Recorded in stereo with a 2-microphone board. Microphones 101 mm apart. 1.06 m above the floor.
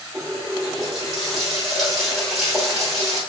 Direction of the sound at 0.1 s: Centre (ahead or behind).